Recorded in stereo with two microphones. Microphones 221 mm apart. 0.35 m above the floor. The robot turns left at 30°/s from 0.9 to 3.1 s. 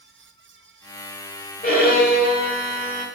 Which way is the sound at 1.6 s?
105° left.